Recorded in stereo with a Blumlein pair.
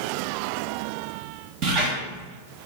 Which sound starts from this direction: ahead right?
A squeak, at 1.6 s.